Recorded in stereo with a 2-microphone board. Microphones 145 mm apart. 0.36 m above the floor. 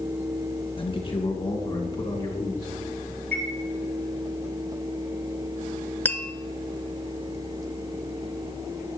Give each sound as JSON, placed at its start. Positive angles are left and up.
{"t": 0.8, "sound": "a man speaking", "side_deg": 40, "distance_m": 2.0}
{"t": 3.3, "sound": "a chime", "side_deg": 10, "distance_m": 3.5}
{"t": 6.0, "sound": "tapping", "side_deg": 15, "distance_m": 0.7}